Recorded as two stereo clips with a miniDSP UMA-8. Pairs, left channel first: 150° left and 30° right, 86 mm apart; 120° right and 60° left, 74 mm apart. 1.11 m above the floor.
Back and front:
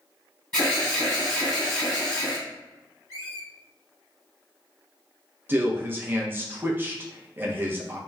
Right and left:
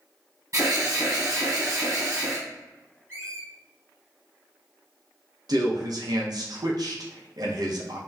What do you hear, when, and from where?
0.5 s an alarm: 75° left, 1.4 m
3.1 s a squeak: 5° left, 1.7 m
5.5 s a man speaking: 35° left, 0.6 m